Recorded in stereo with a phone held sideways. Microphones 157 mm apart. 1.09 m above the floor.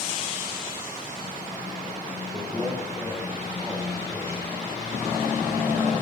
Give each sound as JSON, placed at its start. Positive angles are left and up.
{"t": 2.3, "sound": "a man speaking", "side_deg": -20, "distance_m": 3.0}